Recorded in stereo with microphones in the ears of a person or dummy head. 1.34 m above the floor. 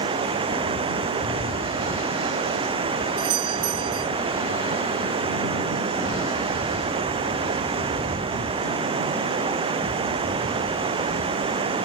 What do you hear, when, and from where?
0.0 s running water: 30° right (ahead or behind)
3.2 s a doorbell: 50° right (ahead or behind)